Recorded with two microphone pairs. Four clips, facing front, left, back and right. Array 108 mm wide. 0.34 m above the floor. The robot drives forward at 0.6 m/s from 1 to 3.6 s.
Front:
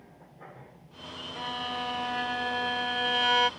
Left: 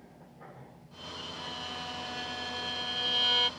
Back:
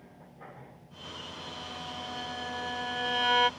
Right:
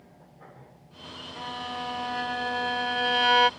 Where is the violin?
45° right; by 3.5 s 90° right.